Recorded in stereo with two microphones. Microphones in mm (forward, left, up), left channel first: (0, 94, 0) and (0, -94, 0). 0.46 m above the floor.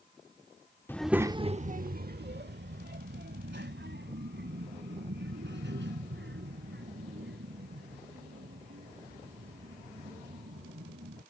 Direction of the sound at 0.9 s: 10° left (ahead or behind).